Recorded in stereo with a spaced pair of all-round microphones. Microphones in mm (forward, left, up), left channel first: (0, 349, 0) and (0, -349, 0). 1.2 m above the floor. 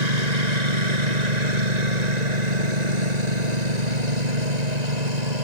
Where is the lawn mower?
80° right.